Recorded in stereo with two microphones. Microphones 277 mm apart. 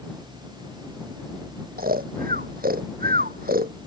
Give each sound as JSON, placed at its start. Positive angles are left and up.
{"t": 1.8, "sound": "snoring", "side_deg": -30}